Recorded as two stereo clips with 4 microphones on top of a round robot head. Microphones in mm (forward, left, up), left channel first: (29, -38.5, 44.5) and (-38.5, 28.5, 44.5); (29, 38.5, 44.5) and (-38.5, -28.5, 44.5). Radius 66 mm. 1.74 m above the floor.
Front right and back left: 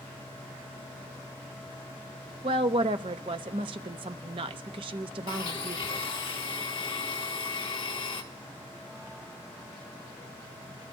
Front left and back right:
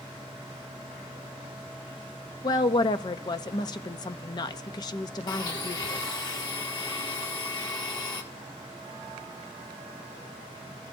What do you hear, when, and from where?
2.4 s a woman speaking: 95° left, 0.6 m
5.3 s a blender: 5° right, 1.3 m